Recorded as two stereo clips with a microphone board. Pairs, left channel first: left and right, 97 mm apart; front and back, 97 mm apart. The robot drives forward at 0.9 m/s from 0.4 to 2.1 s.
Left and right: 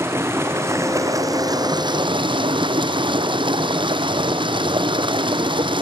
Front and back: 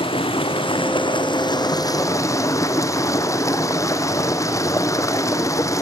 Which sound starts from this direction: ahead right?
Running water, at 0.0 s.